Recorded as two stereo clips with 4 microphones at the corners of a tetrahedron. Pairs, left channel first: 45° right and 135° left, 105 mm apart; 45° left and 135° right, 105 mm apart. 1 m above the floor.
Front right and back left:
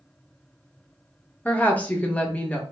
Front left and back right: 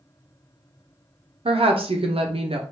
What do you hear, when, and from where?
1.4 s a woman speaking: 120° right, 0.6 m